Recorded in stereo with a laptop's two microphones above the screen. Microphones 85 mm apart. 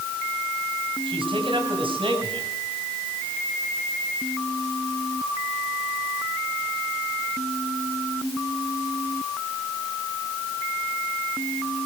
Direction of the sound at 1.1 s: 75° right (ahead or behind).